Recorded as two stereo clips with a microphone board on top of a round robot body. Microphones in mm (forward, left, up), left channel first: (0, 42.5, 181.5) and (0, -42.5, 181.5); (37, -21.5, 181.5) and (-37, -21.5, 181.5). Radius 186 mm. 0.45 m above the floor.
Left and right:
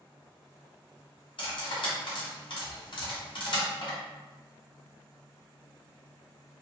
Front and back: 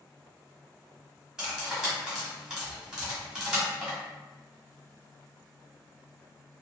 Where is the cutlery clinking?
100° left, 1.5 m.